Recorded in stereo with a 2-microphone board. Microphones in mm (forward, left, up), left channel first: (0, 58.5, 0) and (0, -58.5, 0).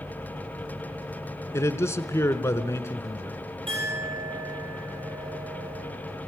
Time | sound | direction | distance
1.5 | a man speaking | 25° left (ahead or behind) | 1.2 m
3.7 | a clink | 50° right (ahead or behind) | 7 m